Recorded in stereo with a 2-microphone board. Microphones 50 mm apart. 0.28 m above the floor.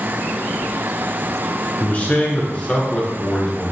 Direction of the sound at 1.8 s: 35° left (ahead or behind).